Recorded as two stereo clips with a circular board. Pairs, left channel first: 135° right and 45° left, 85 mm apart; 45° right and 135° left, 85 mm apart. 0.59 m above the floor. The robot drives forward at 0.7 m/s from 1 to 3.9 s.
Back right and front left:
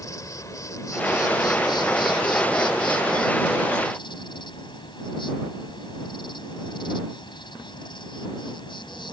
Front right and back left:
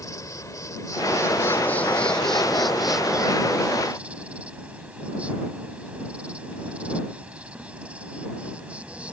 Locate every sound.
0.0 s an insect: 90° right; by 9.1 s 150° right